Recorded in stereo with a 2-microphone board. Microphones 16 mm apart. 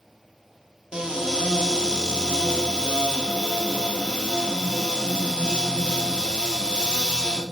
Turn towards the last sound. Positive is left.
turn(degrees=-60)  # may be behind; listen again after turning